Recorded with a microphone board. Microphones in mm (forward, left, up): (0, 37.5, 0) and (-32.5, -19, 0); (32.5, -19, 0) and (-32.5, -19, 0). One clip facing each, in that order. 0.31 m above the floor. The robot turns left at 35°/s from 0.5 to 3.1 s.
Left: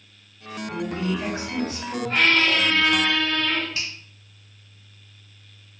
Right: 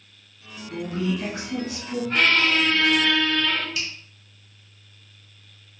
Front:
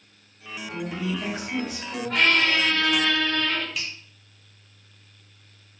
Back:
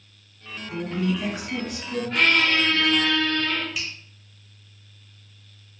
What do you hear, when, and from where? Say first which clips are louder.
0.7 s a woman speaking: right 1 dB, back 4 dB; 120° left, 1.8 m; by 2.0 s 75° left, 1.8 m
2.1 s a squeak: even, even; straight ahead, 1.9 m; by 3.6 s 35° right, 1.9 m
3.8 s a finger snap: right 1 dB, back 1 dB; 90° left, 0.9 m